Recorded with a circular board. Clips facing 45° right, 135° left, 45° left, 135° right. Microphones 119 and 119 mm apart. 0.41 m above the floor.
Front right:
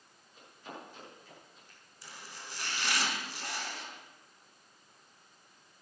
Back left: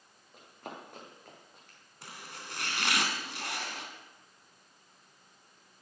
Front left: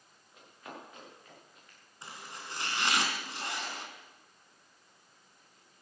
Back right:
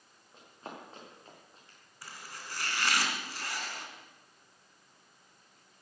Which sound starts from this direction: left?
Chopping, at 2.0 s.